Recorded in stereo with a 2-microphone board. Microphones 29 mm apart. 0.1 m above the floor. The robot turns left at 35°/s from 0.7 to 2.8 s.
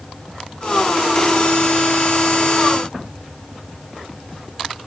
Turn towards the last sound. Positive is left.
No sound to turn to.